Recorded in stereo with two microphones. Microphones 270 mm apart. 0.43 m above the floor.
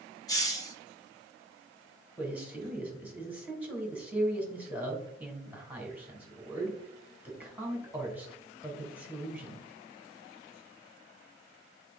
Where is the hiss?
15° left (ahead or behind), 1.2 m.